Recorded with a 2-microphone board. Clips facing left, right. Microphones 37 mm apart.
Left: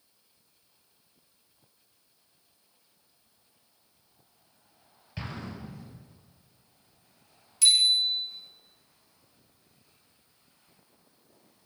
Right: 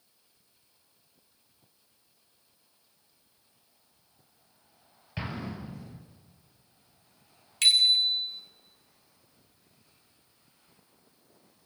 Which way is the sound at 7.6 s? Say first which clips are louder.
Right 1 dB; 50° right (ahead or behind).